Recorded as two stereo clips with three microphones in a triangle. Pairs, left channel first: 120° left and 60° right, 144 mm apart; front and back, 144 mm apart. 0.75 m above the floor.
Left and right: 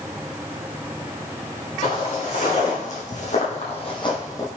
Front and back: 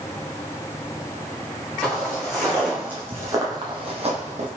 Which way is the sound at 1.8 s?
85° left.